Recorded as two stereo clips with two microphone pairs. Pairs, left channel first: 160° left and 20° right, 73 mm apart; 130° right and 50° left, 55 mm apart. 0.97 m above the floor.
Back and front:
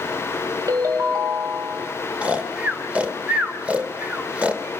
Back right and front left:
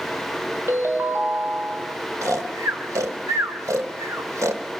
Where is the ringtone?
15° left, 3 m.